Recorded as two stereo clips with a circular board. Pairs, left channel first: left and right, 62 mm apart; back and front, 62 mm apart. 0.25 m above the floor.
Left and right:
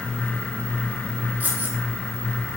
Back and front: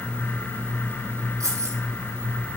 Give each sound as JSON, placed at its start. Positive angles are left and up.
{"t": 1.4, "sound": "keys jangling", "azimuth_deg": -30, "distance_m": 7.0}